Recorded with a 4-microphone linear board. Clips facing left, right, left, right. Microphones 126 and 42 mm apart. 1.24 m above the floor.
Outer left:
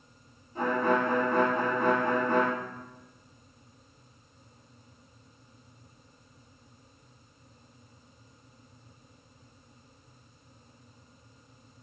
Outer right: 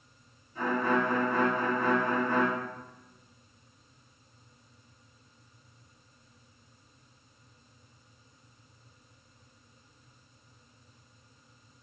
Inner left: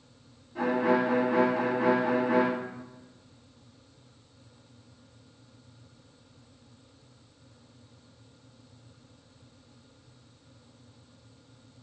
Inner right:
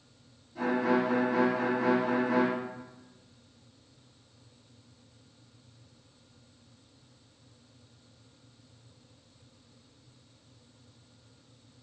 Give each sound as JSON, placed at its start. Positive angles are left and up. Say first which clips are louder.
{"t": 0.6, "sound": "a violin", "louder": "outer left 2 dB, inner left 2 dB", "side_deg": 45, "distance_m": 1.7}